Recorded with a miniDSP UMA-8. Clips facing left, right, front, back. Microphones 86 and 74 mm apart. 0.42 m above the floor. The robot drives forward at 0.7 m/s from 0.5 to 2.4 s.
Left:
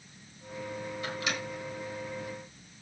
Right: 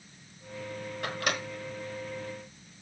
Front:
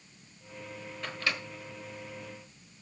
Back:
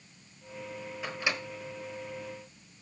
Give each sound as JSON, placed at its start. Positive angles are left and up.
{"t": 1.0, "sound": "a microwave", "azimuth_deg": -100, "distance_m": 1.1}